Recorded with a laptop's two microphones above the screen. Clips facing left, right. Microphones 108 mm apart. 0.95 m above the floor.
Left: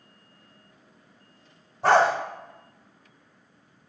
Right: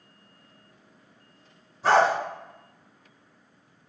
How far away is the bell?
No bell in this recording.